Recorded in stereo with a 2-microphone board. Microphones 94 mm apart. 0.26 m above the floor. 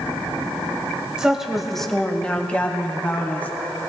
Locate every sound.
1.2 s a woman speaking: 10° right (ahead or behind), 1.0 m; by 3.5 s 20° left (ahead or behind), 1.9 m